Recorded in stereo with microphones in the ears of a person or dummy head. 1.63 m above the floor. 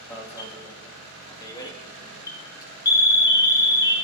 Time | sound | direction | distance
0.1 | an alarm | 20° left (ahead or behind) | 1.8 m